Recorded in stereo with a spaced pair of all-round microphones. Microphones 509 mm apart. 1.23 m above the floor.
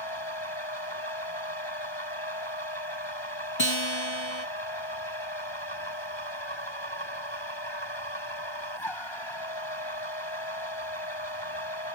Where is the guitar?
65° left (ahead or behind).